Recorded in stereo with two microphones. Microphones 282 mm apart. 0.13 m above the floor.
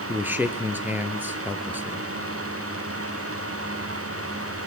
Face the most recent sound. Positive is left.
turn(degrees=-5)  # may be behind; listen again after turning